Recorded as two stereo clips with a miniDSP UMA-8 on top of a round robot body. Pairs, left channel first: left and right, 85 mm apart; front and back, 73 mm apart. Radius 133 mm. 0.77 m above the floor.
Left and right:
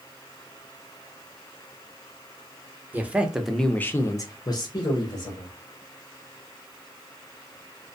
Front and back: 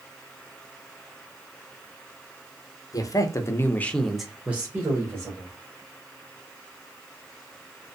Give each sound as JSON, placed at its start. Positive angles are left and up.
{"t": 2.9, "sound": "a man speaking", "azimuth_deg": -25, "distance_m": 0.8}